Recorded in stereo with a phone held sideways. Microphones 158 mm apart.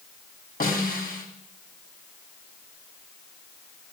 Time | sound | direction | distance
0.6 | a snare drum | 70° left (ahead or behind) | 1.9 m